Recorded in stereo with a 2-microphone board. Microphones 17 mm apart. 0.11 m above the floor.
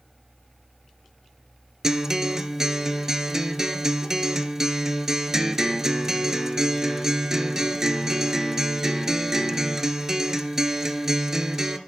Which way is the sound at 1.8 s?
30° right (ahead or behind).